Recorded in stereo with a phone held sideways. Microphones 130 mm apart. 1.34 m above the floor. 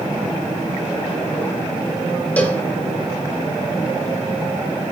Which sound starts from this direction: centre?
A cowbell, at 2.4 s.